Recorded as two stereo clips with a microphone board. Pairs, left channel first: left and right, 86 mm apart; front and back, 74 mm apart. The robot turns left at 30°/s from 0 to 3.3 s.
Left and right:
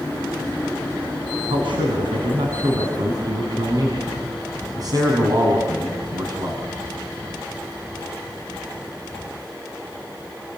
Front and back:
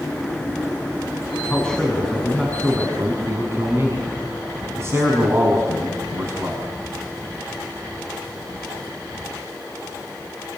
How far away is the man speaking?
About 5.5 m.